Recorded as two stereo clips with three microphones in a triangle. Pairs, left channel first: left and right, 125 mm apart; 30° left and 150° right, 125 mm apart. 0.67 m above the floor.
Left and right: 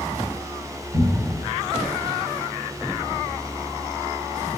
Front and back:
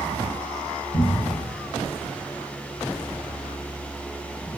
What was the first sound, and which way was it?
A cupboard door, 30° right.